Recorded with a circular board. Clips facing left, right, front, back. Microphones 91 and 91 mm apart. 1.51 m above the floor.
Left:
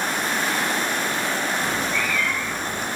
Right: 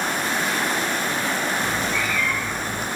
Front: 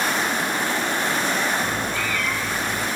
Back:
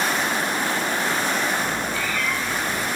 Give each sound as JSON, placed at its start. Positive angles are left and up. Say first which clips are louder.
{"t": 1.6, "sound": "a cat meowing", "louder": "even, even", "azimuth_deg": 0, "distance_m": 3.0}